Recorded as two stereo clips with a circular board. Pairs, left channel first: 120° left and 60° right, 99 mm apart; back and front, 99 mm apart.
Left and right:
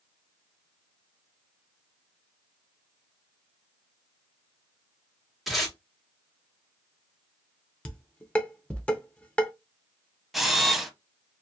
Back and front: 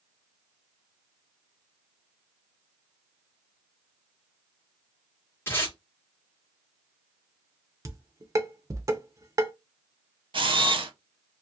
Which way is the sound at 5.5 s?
145° right.